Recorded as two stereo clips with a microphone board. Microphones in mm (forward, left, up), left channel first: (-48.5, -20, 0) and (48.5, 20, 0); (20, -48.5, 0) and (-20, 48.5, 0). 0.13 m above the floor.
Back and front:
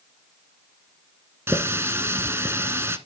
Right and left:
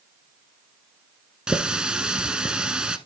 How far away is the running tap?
About 1.0 m.